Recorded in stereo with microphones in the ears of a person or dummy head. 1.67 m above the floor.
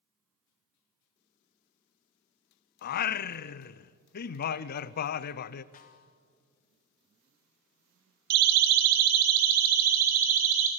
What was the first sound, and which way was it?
Singing, 55° left (ahead or behind).